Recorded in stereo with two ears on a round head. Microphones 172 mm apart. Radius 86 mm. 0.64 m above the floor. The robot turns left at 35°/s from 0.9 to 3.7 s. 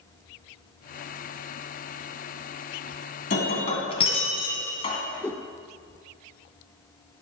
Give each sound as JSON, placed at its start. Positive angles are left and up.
{"t": 3.3, "sound": "breaking glass", "side_deg": 45, "distance_m": 2.0}
{"t": 5.2, "sound": "a whoosh", "side_deg": 10, "distance_m": 0.6}